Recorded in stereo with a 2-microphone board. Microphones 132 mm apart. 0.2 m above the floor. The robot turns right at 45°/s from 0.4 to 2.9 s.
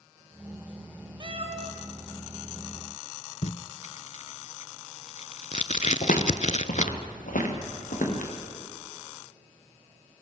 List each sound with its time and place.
1.2 s a cat meowing: 35° right (ahead or behind), 1.8 m; by 1.7 s 60° right (ahead or behind), 1.8 m
3.4 s tape being pulled: 65° left (ahead or behind), 0.6 m
6.0 s footsteps: 85° left, 2.5 m; by 8.3 s 80° left, 5.5 m